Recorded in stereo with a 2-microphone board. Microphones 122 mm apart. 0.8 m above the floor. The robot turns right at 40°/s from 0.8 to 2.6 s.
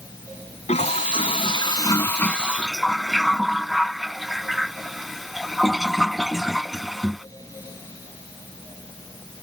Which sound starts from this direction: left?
A toilet flushing, at 0.7 s.